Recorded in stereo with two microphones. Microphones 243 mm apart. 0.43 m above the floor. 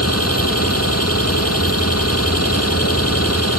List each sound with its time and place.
0.0 s an engine running: 85° left